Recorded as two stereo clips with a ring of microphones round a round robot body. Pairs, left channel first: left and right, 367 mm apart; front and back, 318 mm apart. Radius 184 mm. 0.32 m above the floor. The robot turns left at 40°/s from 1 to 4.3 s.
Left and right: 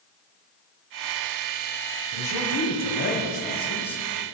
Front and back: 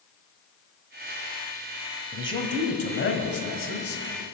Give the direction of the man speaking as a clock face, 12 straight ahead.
9 o'clock.